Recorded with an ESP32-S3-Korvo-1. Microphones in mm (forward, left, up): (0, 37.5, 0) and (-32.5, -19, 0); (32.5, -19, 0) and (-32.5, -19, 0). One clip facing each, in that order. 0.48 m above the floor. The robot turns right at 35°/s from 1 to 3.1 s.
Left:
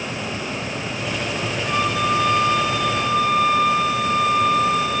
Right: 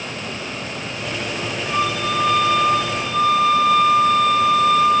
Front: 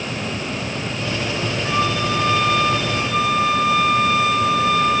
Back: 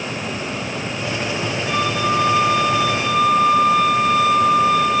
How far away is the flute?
About 9 m.